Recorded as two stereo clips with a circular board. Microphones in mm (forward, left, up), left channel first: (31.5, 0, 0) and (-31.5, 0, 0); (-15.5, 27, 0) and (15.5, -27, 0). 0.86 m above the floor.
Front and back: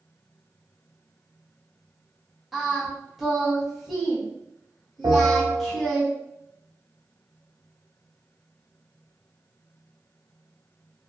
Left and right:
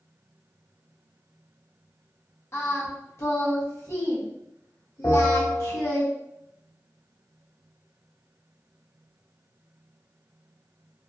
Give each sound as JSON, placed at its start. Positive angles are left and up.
{"t": 2.5, "sound": "singing", "azimuth_deg": 90, "distance_m": 0.9}
{"t": 5.0, "sound": "a bell", "azimuth_deg": 150, "distance_m": 1.1}